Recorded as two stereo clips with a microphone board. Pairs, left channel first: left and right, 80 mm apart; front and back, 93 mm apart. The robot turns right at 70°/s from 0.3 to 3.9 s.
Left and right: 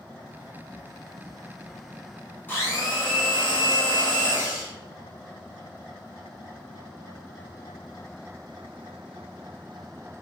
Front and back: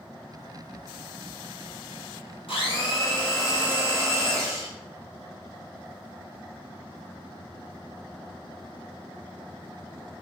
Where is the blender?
20° left, 0.8 m; by 4.7 s 120° left, 0.8 m.